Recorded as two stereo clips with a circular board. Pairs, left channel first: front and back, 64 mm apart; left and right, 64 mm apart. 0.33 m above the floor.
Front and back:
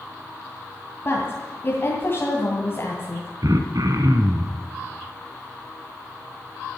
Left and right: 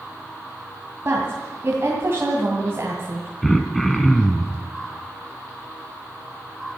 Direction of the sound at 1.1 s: 45° right.